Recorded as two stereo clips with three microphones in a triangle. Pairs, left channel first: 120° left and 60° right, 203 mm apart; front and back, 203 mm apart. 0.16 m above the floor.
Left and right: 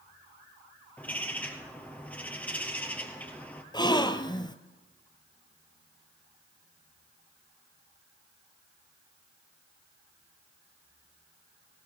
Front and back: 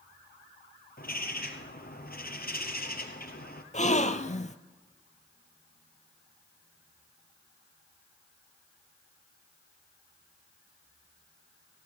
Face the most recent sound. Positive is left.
turn(degrees=50)